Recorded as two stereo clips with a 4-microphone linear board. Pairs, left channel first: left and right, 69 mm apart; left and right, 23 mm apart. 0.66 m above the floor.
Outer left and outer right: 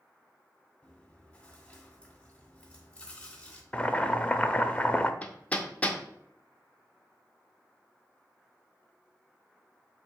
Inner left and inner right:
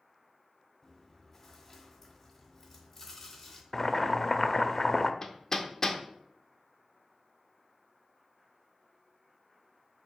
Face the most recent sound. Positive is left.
turn(degrees=20)  # may be behind; listen again after turning